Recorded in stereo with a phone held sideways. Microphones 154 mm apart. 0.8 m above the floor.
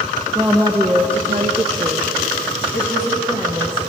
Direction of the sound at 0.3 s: 30° right (ahead or behind).